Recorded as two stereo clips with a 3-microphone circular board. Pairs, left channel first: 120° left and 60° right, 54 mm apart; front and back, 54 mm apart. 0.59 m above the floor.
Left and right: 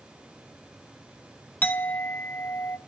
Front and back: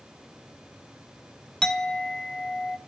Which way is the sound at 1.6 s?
75° left.